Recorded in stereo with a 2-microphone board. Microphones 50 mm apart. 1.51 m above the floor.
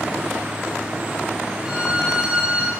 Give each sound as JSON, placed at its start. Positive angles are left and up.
{"t": 1.6, "sound": "a violin", "side_deg": -20, "distance_m": 4.5}